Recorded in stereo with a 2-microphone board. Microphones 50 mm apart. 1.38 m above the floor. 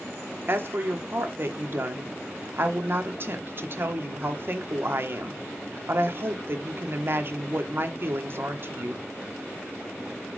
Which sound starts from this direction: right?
A woman speaking, at 0.5 s.